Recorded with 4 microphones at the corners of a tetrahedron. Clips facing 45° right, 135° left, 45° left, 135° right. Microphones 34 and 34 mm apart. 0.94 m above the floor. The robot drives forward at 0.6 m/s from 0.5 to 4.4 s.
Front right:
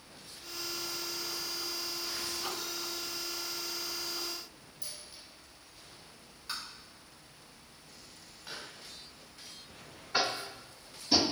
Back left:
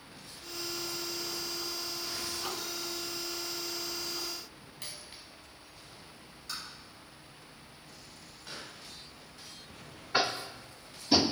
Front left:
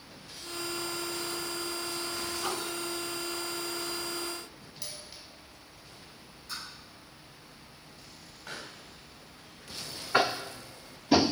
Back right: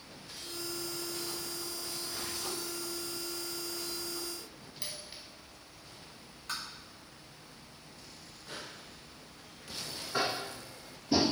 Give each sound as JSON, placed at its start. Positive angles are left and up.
{"t": 4.8, "sound": "a dropped coin", "azimuth_deg": 160, "distance_m": 1.5}
{"t": 6.5, "sound": "tapping", "azimuth_deg": -110, "distance_m": 5.0}
{"t": 8.5, "sound": "a pop", "azimuth_deg": 35, "distance_m": 2.5}
{"t": 10.1, "sound": "tapping", "azimuth_deg": 55, "distance_m": 0.8}